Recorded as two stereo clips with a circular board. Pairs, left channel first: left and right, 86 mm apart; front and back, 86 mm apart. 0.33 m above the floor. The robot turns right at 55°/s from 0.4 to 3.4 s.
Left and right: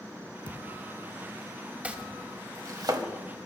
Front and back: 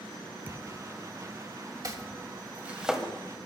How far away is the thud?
About 1.4 m.